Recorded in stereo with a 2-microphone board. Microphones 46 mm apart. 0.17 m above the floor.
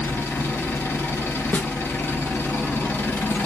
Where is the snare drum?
40° left (ahead or behind), 0.7 m.